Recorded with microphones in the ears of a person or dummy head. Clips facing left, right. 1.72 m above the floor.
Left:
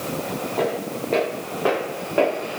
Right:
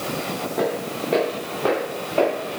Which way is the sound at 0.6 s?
10° right (ahead or behind).